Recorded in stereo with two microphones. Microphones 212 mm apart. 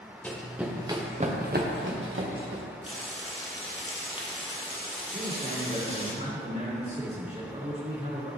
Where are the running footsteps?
10° left (ahead or behind), 1.5 m; by 2.6 s 80° right, 1.9 m.